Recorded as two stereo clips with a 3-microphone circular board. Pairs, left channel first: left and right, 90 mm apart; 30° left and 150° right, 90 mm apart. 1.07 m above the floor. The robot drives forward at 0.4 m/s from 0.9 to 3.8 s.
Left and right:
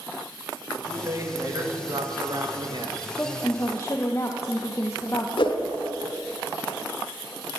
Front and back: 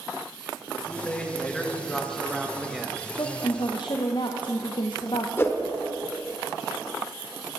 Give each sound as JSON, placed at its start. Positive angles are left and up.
{"t": 0.7, "sound": "a man speaking", "azimuth_deg": -40, "distance_m": 1.7}
{"t": 3.2, "sound": "a woman speaking", "azimuth_deg": 30, "distance_m": 1.0}
{"t": 5.4, "sound": "a whoosh", "azimuth_deg": 90, "distance_m": 1.2}